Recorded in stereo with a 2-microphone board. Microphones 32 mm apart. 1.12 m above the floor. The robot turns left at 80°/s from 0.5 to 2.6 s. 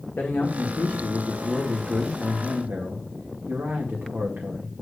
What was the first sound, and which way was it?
A man speaking, 85° left.